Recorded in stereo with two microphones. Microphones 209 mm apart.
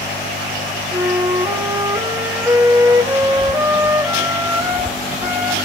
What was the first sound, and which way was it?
A flute, 15° right (ahead or behind).